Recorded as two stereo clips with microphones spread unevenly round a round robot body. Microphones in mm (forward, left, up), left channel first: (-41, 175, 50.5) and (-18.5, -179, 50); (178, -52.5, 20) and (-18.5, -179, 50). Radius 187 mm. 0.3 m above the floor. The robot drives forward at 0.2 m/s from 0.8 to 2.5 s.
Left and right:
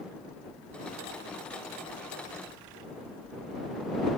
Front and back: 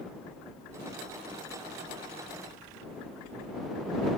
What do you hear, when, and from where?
Only background noise.